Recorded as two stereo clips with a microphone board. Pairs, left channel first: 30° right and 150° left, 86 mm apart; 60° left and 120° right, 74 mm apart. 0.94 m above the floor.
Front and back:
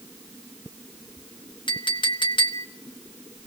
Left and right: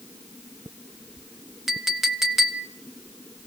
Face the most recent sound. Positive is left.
turn(degrees=-35)